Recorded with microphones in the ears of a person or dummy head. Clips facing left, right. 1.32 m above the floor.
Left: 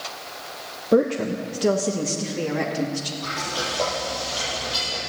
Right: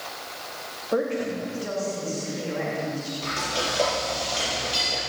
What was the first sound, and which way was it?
A woman speaking, 40° left (ahead or behind).